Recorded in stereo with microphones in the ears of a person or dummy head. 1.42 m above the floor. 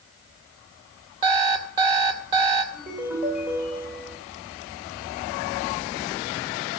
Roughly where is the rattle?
I don't hear a rattle.